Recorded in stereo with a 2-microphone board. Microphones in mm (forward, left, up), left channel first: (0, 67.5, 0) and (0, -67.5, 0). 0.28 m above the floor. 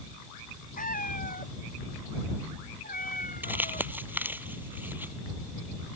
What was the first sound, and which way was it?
A cat meowing, 80° left.